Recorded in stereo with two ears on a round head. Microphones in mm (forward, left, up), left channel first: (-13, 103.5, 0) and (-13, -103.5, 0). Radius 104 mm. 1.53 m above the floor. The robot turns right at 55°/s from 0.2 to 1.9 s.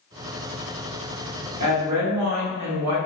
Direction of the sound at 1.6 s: 90° right.